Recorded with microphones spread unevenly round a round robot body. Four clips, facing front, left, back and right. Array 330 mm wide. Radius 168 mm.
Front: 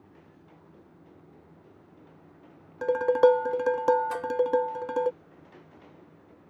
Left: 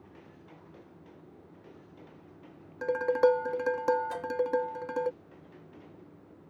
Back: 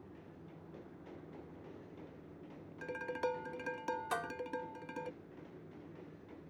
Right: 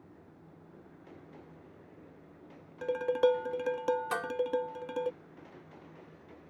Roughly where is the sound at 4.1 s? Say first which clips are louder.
Right 1 dB, front 8 dB; behind right.